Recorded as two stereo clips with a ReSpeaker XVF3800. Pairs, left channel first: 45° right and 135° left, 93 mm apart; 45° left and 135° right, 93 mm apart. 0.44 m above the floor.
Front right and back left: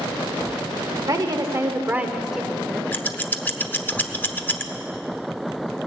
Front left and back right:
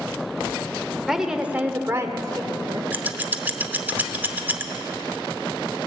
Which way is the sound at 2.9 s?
90° right.